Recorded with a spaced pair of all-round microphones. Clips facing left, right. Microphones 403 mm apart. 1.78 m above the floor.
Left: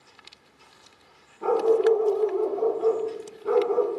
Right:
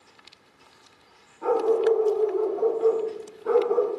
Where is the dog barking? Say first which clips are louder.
Left 1 dB; 50° left (ahead or behind), 2.5 m; by 3.9 s 40° left (ahead or behind), 2 m.